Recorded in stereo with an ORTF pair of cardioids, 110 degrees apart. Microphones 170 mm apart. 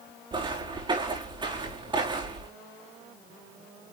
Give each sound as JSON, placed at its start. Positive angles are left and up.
{"t": 0.3, "sound": "footsteps", "azimuth_deg": -30, "distance_m": 5.0}